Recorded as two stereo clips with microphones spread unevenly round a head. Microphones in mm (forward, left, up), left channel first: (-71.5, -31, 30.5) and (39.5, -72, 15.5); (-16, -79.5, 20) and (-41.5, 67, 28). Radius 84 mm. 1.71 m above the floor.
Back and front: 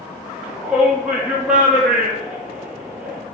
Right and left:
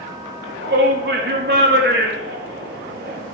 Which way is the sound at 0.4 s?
65° left.